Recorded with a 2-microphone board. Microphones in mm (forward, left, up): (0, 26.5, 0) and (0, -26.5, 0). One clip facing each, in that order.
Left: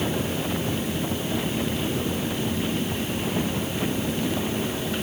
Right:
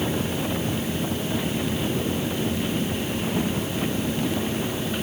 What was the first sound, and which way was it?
Only background noise.